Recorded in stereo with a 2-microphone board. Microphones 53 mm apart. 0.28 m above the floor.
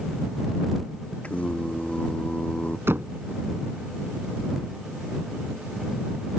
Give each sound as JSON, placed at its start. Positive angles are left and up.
{"t": 1.2, "sound": "singing", "side_deg": 25}
{"t": 2.9, "sound": "knocking", "side_deg": -50}